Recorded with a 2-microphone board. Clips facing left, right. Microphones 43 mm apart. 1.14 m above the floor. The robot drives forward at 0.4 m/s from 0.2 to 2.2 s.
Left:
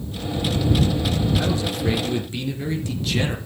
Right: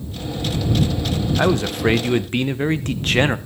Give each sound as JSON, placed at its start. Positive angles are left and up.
{"t": 1.4, "sound": "a man speaking", "side_deg": -50, "distance_m": 0.9}